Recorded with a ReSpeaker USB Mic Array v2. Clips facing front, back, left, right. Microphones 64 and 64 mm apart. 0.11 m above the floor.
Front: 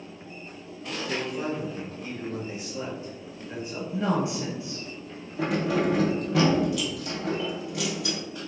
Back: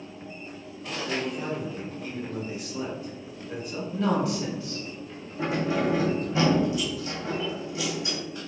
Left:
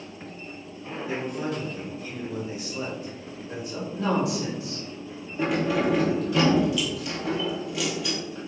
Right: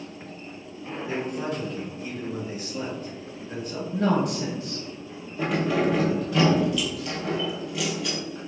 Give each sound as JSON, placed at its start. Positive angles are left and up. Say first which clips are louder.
{"t": 1.1, "sound": "a man speaking", "louder": "even, even", "azimuth_deg": -60, "distance_m": 1.7}
{"t": 3.9, "sound": "a woman speaking", "louder": "back 1 dB, right 2 dB", "azimuth_deg": -65, "distance_m": 1.7}
{"t": 5.4, "sound": "keys jangling", "louder": "front 1 dB, even", "azimuth_deg": 5, "distance_m": 1.7}